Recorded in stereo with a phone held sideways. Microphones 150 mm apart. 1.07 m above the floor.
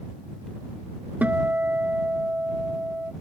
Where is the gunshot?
No gunshot in this recording.